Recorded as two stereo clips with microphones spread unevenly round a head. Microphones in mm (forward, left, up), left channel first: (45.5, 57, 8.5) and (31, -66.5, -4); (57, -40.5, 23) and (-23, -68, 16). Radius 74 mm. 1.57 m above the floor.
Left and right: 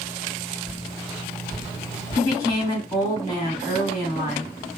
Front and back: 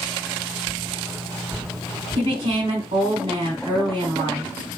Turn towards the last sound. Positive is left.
turn(degrees=150)